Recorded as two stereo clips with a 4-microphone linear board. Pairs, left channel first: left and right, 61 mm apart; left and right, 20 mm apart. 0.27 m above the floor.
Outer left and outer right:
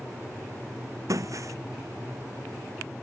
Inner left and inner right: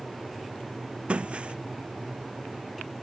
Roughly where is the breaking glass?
Right.